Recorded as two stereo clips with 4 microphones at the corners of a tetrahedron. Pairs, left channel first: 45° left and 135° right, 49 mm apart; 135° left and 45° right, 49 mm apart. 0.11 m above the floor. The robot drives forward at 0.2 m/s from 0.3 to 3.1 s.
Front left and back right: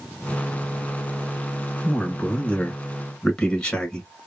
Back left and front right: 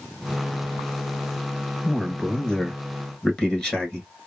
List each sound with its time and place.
1.8 s a man speaking: 55° left, 1.2 m; by 4.1 s 85° left, 1.2 m